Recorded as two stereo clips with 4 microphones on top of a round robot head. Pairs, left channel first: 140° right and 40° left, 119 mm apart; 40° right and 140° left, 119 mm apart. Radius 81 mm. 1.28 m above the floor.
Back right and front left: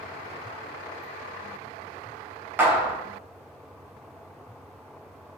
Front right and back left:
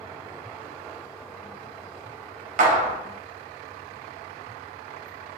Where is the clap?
120° left, 0.5 m.